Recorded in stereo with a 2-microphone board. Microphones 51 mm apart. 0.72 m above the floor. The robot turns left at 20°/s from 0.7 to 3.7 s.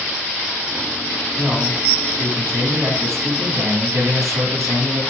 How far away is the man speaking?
About 4.5 m.